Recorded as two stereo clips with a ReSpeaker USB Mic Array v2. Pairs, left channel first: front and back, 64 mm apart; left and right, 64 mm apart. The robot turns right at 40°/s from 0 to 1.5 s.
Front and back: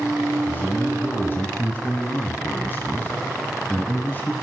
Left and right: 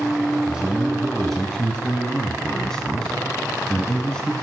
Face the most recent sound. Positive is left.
turn(degrees=20)